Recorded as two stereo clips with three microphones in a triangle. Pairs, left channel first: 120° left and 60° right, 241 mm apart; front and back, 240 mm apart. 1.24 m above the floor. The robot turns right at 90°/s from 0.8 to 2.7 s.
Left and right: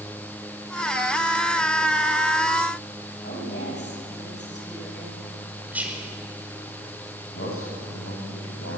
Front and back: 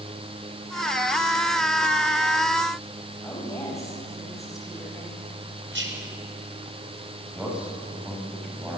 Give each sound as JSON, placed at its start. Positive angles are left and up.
{"t": 3.2, "sound": "a woman speaking", "azimuth_deg": 75, "distance_m": 8.5}
{"t": 5.7, "sound": "whispering", "azimuth_deg": -145, "distance_m": 4.5}
{"t": 7.3, "sound": "a man speaking", "azimuth_deg": 95, "distance_m": 8.0}